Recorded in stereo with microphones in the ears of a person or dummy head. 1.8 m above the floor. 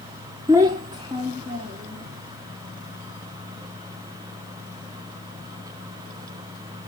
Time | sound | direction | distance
0.5 | a child speaking | 15° right (ahead or behind) | 0.6 m